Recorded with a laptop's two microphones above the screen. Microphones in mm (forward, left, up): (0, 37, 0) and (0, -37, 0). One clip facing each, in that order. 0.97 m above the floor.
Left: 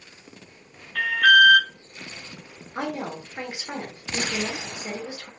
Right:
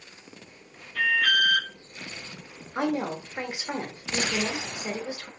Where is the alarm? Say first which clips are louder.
Left 7 dB; 70° left (ahead or behind), 0.5 m.